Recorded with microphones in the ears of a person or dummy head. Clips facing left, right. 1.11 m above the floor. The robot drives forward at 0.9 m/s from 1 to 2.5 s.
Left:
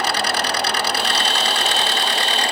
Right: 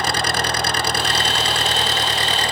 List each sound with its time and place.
0.0 s an engine running: 40° right (ahead or behind); by 2.5 s 35° right (ahead or behind)